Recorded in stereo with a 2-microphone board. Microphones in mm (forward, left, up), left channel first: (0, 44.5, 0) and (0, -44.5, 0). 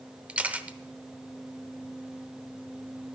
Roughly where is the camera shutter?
Centre.